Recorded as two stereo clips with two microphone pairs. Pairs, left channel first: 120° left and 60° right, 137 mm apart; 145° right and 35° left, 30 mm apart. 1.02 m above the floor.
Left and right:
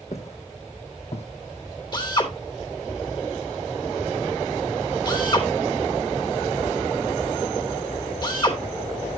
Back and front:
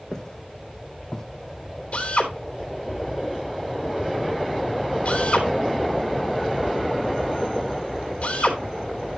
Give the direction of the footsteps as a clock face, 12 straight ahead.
7 o'clock.